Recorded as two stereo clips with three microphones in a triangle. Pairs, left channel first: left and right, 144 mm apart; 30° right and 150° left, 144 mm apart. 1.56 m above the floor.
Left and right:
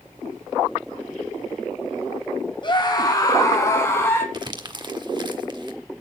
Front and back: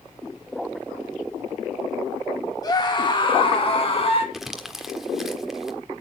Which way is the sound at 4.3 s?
125° right.